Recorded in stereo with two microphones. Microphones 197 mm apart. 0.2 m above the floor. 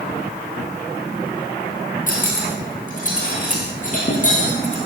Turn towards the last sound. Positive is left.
turn(degrees=45)  # may be behind; listen again after turning